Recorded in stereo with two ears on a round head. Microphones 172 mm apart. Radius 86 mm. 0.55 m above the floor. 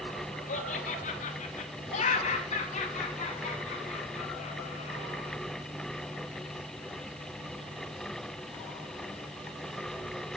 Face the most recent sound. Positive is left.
turn(degrees=35)  # may be behind; listen again after turning